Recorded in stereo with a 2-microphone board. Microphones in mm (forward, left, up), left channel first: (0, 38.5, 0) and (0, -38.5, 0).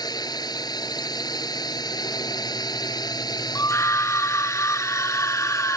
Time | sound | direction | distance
0.0 | a drone | 60° left (ahead or behind) | ?
3.5 | a scream | 40° left (ahead or behind) | ?